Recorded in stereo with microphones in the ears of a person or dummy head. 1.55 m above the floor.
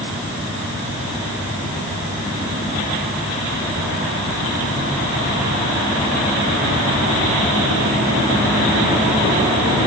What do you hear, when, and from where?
Only background noise.